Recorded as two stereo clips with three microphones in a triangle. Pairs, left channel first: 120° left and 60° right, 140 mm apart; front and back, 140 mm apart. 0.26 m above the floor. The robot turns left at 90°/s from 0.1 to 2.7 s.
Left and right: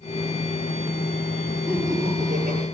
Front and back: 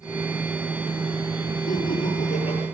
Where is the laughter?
25° left, 5.5 m; by 2.6 s 60° right, 5.5 m.